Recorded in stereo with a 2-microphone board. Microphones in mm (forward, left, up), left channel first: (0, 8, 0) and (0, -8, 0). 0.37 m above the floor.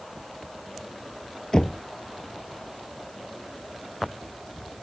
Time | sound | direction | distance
1.5 | knocking | 40° left (ahead or behind) | ?